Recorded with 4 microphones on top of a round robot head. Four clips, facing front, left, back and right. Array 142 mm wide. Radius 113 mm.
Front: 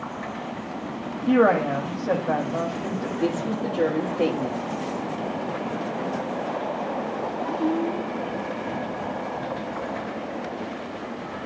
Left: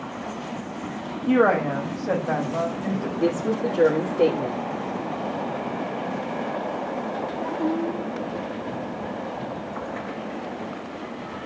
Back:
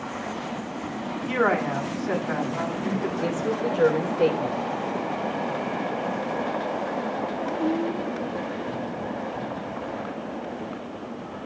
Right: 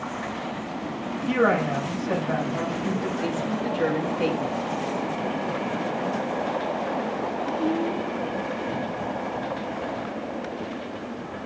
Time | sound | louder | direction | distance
1.3 | a woman speaking | left 3 dB, front 5 dB | 35° left | 3.5 m
3.2 | a woman speaking | left 4 dB, front 3 dB | 50° left | 3 m